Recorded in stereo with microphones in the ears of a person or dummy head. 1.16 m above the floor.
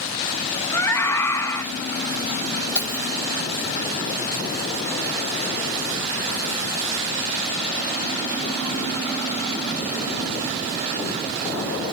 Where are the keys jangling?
10° left (ahead or behind), 2 m.